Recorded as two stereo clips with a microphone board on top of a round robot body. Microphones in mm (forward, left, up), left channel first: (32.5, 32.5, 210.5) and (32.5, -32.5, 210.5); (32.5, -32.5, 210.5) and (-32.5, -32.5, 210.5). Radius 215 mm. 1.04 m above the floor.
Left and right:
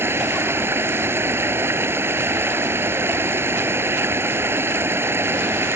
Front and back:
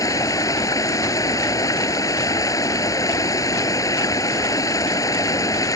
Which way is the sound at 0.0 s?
35° right.